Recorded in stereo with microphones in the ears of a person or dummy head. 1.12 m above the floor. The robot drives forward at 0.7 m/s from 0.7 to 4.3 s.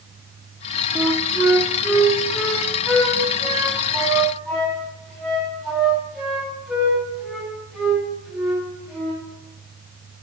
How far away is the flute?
About 0.6 m.